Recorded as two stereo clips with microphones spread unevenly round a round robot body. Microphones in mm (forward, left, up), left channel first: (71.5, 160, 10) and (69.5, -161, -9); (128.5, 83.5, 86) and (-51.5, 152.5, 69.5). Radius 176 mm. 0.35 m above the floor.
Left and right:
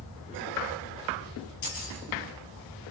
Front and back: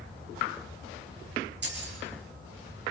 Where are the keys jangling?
135° left, 6 m.